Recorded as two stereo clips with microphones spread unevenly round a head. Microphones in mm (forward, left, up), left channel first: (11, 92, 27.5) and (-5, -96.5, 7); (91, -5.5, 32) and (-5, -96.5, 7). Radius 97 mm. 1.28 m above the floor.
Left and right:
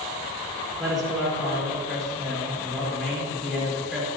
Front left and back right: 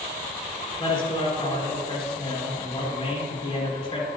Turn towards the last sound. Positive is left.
turn(degrees=-5)